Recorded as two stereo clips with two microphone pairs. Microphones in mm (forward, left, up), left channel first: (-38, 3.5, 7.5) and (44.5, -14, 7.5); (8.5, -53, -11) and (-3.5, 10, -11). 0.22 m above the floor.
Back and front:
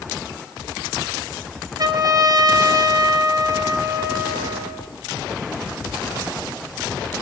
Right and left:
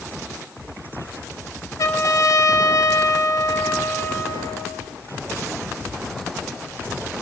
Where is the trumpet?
45° right, 2.5 m.